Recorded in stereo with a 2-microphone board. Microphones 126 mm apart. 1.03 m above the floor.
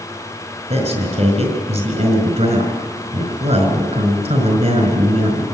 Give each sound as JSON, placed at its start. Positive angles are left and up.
{"t": 0.7, "sound": "a man speaking", "side_deg": -65, "distance_m": 4.5}